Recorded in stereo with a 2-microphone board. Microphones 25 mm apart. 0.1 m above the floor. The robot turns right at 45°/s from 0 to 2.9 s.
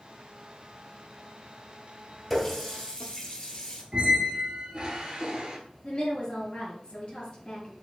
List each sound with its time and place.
2.3 s a running tap: 5° left (ahead or behind), 1.5 m; by 3.8 s 25° left (ahead or behind), 1.5 m
3.9 s a squeak: 35° right (ahead or behind), 1.2 m
5.8 s a woman speaking: 40° left (ahead or behind), 2 m